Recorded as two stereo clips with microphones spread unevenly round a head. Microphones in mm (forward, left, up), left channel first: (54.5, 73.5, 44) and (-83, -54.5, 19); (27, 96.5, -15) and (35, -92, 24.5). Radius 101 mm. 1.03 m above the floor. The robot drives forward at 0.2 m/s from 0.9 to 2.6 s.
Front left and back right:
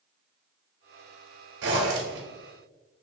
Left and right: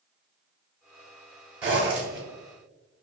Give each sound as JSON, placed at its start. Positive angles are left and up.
{"t": 1.6, "sound": "a zipper", "azimuth_deg": -160, "distance_m": 1.2}